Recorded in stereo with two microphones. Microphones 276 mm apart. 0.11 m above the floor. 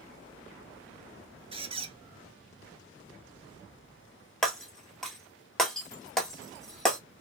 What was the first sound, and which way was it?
A squeak, 20° right (ahead or behind).